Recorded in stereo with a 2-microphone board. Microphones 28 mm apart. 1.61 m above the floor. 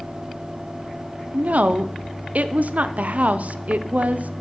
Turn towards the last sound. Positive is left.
turn(degrees=-70)  # may be behind; listen again after turning